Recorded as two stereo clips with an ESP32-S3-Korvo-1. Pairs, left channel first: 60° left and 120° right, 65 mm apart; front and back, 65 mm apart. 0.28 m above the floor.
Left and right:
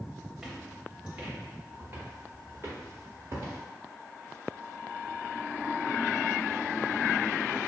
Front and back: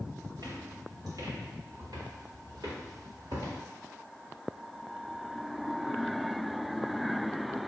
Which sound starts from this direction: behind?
Footsteps, at 0.4 s.